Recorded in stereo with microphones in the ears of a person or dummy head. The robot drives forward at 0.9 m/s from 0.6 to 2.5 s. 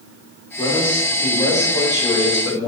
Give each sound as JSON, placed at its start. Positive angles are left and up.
{"t": 0.6, "sound": "a man speaking", "side_deg": 25, "distance_m": 3.5}